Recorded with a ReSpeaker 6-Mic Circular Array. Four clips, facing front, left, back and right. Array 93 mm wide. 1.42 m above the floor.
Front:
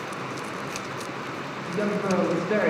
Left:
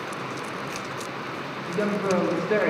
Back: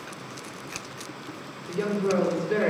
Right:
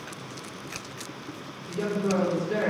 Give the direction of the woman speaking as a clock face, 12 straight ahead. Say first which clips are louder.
Left 2 dB, even; 10 o'clock.